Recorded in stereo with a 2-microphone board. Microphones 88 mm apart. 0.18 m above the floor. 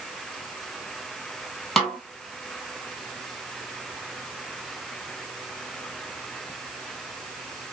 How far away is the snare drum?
About 1.1 m.